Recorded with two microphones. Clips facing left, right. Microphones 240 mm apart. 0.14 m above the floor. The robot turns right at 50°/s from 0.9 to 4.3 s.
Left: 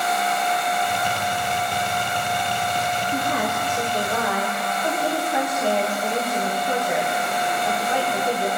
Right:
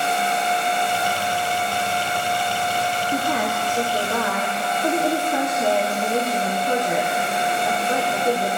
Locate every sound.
3.1 s a woman speaking: 110° right, 4 m; by 8.5 s 50° right, 4 m